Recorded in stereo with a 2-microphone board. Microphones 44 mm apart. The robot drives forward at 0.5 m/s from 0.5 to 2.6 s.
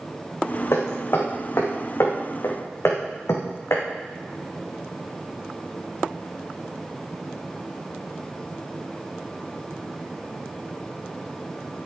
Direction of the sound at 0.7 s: 70° left (ahead or behind).